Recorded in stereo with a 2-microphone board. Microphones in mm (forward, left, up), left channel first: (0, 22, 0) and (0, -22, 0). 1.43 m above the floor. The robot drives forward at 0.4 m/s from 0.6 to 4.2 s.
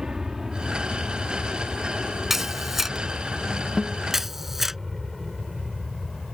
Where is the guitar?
Centre (ahead or behind).